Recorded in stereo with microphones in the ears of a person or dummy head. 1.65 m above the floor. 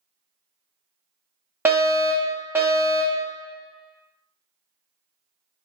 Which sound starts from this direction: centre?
A fire alarm, at 1.6 s.